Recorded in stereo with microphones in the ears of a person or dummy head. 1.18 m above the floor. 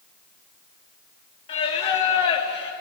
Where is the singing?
35° left (ahead or behind), 1.1 m.